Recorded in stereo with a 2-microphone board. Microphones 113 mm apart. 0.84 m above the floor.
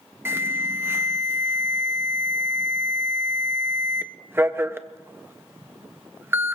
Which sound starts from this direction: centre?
An alarm, at 0.2 s.